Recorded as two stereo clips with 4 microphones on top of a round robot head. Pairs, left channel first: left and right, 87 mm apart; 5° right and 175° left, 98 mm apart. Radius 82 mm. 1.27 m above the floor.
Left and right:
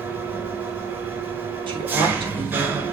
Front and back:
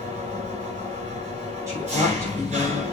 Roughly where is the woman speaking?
Behind right.